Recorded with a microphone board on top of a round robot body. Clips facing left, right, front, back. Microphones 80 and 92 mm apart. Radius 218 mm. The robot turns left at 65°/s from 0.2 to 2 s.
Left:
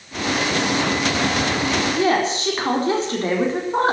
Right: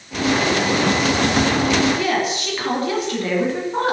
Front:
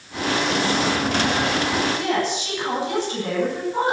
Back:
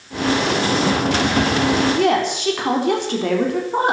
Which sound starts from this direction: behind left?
A woman speaking, at 1.9 s.